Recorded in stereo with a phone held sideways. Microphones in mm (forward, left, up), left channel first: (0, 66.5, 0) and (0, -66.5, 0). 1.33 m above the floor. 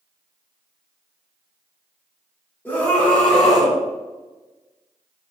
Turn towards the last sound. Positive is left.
turn(degrees=0)  # may be behind; listen again after turning